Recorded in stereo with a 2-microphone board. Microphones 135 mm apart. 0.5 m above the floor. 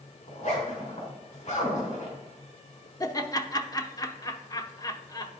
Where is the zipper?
55° left (ahead or behind), 3.5 m.